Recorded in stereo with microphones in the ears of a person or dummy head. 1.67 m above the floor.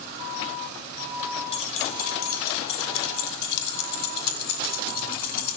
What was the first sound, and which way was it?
Keys jangling, 30° left (ahead or behind).